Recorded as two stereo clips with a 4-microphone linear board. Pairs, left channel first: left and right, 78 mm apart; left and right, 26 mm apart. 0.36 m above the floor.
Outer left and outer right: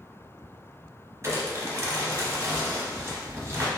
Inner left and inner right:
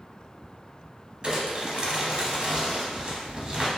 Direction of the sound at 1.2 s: 40° right (ahead or behind).